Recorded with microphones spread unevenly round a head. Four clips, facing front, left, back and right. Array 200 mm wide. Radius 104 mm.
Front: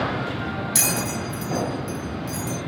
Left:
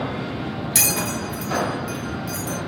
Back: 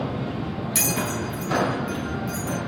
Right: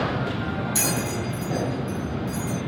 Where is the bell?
75° left, 1.0 m.